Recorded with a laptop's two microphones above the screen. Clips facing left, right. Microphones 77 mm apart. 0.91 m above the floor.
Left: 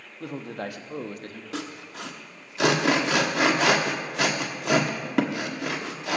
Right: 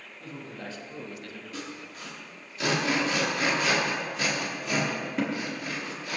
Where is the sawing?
80° left, 1.0 m.